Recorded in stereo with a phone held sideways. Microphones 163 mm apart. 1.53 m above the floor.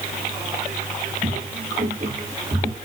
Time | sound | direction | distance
1.2 | footsteps | 45° right (ahead or behind) | 2.5 m